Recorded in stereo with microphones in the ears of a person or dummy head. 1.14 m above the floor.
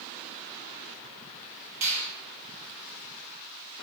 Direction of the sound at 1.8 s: 50° right (ahead or behind).